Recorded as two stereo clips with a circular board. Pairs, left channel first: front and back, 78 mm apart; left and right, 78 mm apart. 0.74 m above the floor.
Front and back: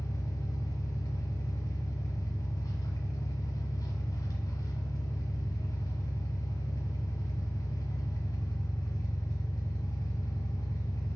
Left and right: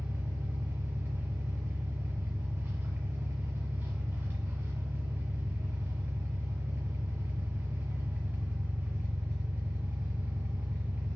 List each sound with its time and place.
0.0 s an engine running: 35° right, 1.1 m